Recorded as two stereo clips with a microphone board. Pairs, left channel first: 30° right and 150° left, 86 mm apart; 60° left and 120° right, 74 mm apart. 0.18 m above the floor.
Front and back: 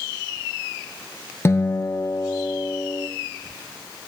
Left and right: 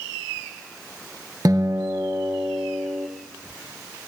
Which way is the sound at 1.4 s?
85° right.